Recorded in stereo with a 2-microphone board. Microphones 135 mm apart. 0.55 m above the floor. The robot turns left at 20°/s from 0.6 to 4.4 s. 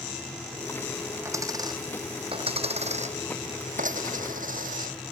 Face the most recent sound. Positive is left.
turn(degrees=-85)